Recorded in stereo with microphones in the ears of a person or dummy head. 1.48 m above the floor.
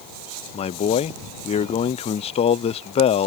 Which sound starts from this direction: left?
A man speaking, at 0.5 s.